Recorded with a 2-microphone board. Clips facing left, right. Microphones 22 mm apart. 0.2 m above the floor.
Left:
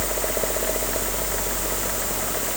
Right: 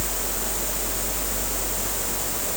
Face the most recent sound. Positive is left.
No sound to turn to.